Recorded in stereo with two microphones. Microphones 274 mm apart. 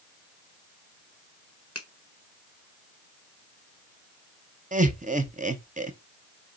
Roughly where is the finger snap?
Left.